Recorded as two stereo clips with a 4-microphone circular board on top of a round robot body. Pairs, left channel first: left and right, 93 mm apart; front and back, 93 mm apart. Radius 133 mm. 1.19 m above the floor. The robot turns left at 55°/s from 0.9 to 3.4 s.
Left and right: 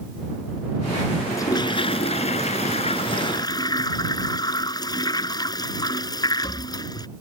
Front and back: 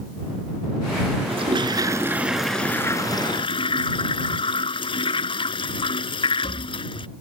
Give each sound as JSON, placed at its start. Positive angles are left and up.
{"t": 1.3, "sound": "a toilet flushing", "azimuth_deg": 155}